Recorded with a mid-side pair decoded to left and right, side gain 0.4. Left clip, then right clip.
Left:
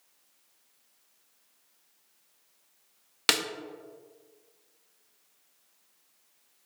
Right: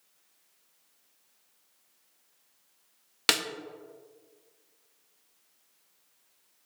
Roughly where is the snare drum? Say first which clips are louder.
Even; ahead.